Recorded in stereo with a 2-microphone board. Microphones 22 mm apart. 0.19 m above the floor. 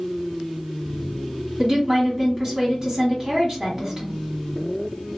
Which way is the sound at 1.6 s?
30° right (ahead or behind).